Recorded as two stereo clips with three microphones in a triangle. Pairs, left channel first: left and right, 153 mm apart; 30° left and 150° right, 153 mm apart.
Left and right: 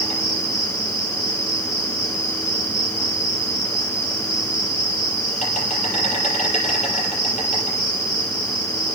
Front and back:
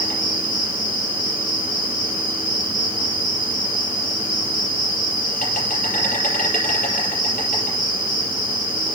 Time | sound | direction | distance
0.0 | an insect | 55° left | 6.5 m